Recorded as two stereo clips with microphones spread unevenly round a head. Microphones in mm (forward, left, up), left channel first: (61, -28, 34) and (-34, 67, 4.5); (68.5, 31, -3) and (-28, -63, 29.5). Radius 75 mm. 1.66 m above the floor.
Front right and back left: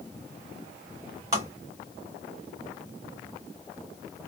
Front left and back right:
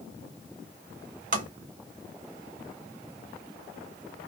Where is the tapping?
150° right, 1.2 m.